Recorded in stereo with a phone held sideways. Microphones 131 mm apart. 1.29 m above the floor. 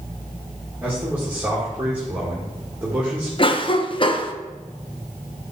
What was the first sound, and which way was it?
A man speaking, 10° right (ahead or behind).